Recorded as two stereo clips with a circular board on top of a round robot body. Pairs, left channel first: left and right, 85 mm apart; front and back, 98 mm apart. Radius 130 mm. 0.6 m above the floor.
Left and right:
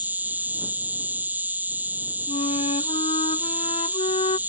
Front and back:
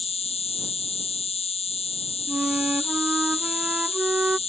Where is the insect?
20° right.